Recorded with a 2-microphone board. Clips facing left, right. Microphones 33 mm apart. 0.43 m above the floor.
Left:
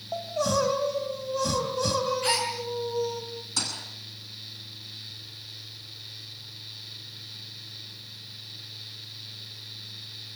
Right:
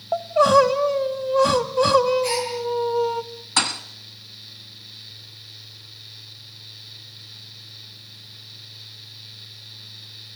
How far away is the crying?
About 1.4 m.